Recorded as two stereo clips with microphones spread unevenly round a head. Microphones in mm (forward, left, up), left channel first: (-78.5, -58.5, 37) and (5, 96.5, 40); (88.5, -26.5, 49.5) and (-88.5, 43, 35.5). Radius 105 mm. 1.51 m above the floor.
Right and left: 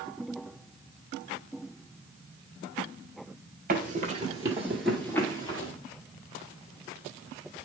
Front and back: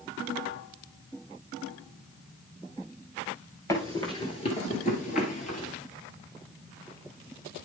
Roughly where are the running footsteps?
Ahead left.